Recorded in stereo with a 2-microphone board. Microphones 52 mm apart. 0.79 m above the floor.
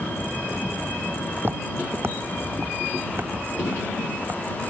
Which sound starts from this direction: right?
Footsteps, at 1.4 s.